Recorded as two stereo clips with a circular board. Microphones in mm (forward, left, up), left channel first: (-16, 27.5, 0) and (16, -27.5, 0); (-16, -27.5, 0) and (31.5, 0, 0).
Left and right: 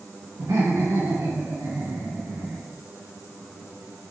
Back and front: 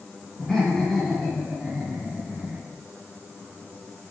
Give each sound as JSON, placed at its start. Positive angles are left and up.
{"t": 0.4, "sound": "laughter", "azimuth_deg": -75, "distance_m": 3.0}